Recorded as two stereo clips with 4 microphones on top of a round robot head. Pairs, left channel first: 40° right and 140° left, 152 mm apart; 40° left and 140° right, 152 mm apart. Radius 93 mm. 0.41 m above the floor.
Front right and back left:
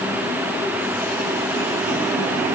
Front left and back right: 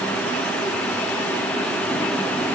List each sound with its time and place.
Only background noise.